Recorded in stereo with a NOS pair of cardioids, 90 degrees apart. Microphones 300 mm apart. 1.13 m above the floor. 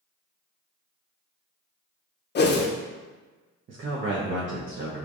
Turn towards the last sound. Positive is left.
turn(degrees=-40)